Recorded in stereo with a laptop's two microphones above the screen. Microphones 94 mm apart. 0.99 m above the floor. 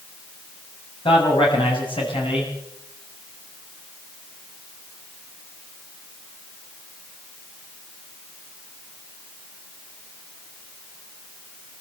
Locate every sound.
1.1 s a man speaking: 70° left (ahead or behind), 7 m